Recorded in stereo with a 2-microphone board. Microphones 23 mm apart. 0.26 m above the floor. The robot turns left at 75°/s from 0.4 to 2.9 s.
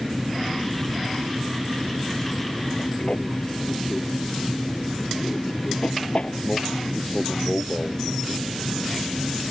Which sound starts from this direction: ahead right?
An aircraft, at 0.0 s.